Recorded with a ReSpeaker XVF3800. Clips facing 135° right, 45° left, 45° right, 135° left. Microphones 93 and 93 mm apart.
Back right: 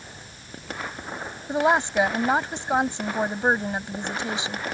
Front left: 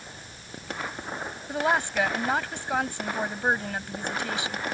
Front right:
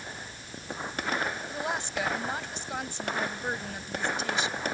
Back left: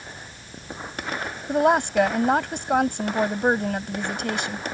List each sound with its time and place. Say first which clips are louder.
1.5 s a woman speaking: back right 5 dB, back left 13 dB; 160° left